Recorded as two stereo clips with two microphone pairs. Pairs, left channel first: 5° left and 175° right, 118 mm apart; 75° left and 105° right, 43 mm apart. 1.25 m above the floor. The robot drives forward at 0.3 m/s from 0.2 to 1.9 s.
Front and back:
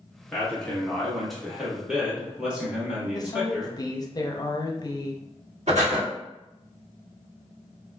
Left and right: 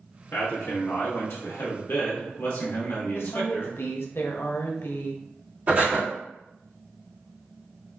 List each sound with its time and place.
0.3 s a man speaking: 80° left, 1.3 m; by 3.8 s 100° left, 1.3 m
3.1 s a woman speaking: 60° left, 0.6 m
5.7 s breathing: 160° right, 1.4 m